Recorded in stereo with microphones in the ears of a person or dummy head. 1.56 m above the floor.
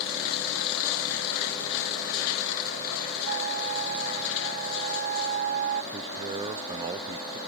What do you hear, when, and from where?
3.2 s a flute: 50° right (ahead or behind)
5.9 s a man speaking: 25° right (ahead or behind)